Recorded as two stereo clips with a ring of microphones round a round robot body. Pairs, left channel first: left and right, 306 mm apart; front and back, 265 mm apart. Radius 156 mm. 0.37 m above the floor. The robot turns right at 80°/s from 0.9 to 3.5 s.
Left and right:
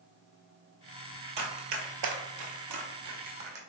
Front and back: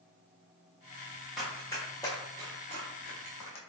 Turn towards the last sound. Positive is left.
turn(degrees=-35)